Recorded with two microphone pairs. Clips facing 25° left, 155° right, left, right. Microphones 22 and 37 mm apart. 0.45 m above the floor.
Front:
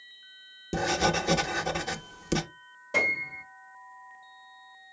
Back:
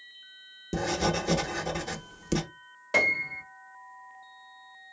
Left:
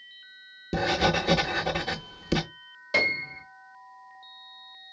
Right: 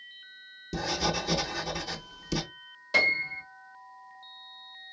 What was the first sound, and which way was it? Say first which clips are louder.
Writing: front 2 dB, left 6 dB; 85° left.